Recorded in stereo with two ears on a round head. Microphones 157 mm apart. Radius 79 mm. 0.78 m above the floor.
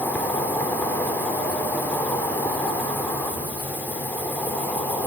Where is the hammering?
No hammering in this recording.